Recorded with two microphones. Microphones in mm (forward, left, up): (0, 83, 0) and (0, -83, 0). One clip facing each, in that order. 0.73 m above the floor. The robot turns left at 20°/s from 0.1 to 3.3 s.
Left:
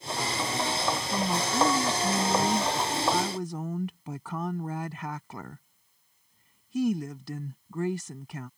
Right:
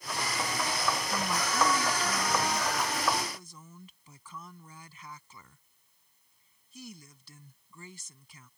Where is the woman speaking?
155° left; by 8.5 s 110° left.